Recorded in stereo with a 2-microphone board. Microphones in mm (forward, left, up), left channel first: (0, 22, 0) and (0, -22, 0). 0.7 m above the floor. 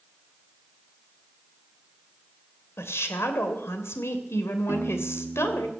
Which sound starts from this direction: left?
A woman speaking, at 2.8 s.